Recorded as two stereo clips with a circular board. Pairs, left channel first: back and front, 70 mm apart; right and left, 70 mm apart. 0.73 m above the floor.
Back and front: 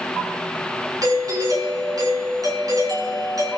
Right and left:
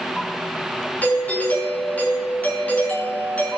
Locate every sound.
1.0 s a doorbell: 25° right, 5 m